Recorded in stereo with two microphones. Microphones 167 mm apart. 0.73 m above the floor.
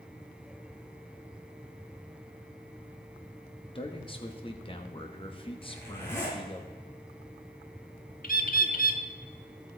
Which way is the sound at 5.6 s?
15° left (ahead or behind).